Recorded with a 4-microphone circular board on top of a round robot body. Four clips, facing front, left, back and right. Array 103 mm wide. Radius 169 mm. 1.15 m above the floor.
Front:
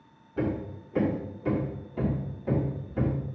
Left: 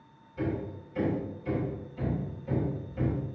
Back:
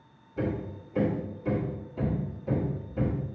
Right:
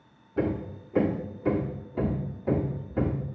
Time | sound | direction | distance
0.4 | hammering | 70° right | 1.6 m